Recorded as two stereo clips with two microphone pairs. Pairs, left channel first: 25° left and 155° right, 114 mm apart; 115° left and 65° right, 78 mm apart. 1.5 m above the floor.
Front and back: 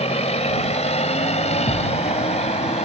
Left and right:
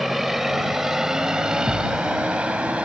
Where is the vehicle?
25° left; by 2.9 s 10° left.